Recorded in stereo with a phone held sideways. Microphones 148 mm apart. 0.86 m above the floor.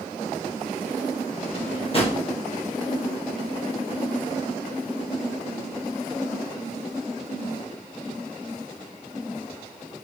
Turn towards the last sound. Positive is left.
turn(degrees=40)  # may be behind; listen again after turning